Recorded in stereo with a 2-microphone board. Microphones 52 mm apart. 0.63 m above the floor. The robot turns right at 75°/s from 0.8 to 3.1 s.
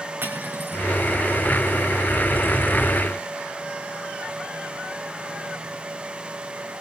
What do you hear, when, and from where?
0.2 s cutlery clinking: 40° right (ahead or behind), 4.5 m; by 0.9 s 45° right (ahead or behind), 4.5 m